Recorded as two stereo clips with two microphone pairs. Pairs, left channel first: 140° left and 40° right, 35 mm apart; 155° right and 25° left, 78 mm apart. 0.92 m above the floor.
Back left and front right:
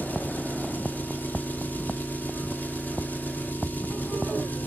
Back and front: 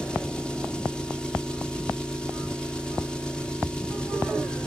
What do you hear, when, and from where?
0.0 s an engine running: 125° left, 1.8 m